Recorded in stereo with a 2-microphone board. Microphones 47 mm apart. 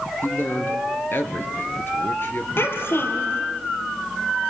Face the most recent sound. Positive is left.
turn(degrees=50)  # may be behind; listen again after turning